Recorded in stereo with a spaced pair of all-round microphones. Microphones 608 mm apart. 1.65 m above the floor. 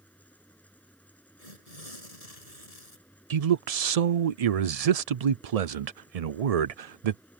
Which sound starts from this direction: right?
A man speaking, at 3.3 s.